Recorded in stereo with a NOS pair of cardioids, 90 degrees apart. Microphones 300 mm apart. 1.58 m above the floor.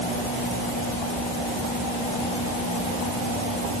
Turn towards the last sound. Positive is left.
No sound to turn to.